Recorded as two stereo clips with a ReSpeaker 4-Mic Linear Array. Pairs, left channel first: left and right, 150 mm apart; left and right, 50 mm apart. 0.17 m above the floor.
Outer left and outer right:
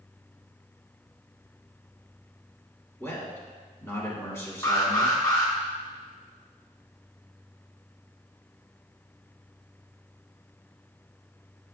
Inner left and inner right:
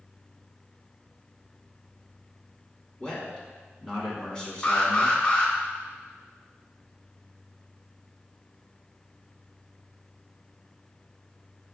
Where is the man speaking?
20° left (ahead or behind), 1.1 m.